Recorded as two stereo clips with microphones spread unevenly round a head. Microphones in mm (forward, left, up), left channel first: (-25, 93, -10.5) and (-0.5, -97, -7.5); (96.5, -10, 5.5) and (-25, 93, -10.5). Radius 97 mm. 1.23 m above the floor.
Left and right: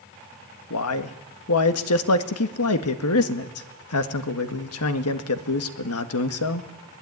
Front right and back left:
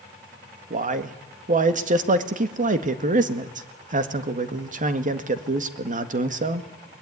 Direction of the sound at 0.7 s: 100° left.